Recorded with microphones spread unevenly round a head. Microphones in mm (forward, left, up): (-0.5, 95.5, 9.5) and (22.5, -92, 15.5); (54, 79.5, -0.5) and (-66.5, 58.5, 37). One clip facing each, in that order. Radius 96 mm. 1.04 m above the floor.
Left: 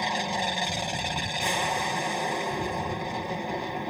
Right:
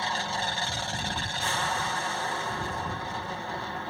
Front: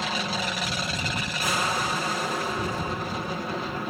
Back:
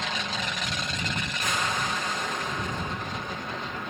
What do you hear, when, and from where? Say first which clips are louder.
0.0 s an aircraft: left 3 dB, front 3 dB; 45° left